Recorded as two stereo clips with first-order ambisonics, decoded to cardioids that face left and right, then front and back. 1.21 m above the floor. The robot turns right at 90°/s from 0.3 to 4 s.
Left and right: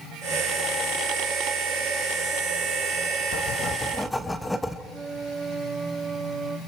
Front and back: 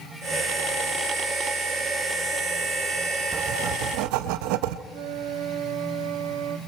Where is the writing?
115° left, 0.8 m; by 4.8 s 175° left, 0.8 m.